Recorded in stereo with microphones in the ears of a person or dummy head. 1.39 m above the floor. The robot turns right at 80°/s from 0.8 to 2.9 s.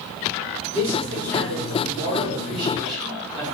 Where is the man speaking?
175° right, 1.2 m; by 3.5 s 5° right, 1.2 m.